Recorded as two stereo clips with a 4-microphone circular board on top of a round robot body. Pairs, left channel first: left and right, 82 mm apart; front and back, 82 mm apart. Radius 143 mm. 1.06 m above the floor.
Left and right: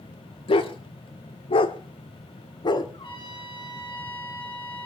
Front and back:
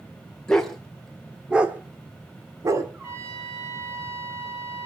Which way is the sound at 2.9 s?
120° left.